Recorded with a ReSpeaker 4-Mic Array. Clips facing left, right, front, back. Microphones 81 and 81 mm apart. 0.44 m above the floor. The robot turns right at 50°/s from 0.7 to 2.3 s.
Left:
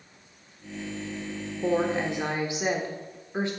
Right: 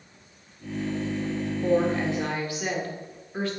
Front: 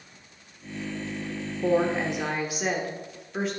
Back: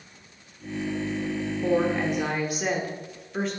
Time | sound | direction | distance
1.6 | a woman speaking | 50° left | 1.1 m